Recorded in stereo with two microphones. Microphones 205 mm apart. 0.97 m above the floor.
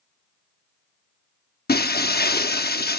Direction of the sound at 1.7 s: 50° left (ahead or behind).